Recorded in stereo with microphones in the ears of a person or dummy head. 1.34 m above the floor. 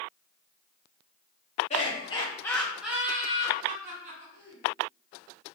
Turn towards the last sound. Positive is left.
turn(degrees=-50)  # may be behind; listen again after turning